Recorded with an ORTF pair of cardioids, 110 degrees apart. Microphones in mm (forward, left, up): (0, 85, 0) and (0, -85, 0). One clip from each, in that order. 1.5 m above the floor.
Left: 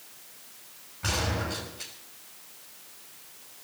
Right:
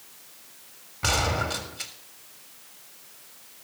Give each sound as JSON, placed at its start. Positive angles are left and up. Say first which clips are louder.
{"t": 1.0, "sound": "a gunshot", "louder": "right 5 dB", "azimuth_deg": -50, "distance_m": 3.5}